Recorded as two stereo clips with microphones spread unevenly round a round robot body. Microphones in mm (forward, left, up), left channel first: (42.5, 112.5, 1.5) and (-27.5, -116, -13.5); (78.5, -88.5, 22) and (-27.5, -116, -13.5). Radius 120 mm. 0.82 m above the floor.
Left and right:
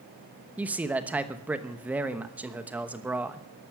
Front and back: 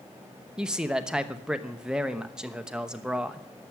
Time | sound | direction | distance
0.6 | a man speaking | 175° right | 0.9 m